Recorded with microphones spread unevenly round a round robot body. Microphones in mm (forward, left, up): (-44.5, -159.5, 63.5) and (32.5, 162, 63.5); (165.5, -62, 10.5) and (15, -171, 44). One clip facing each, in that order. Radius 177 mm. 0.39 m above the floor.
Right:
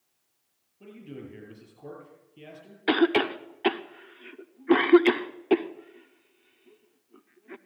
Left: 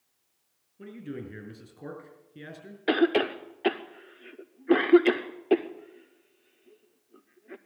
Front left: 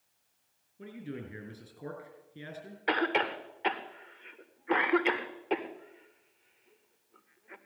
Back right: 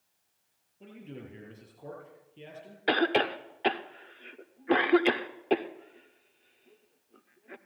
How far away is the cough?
About 0.8 m.